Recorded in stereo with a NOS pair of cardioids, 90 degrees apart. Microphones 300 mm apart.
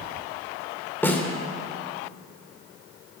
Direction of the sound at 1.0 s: 5° left.